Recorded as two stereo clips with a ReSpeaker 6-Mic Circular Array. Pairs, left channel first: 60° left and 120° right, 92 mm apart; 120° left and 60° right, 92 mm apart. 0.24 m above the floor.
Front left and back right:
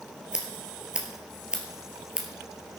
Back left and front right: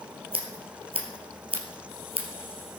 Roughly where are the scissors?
Ahead right.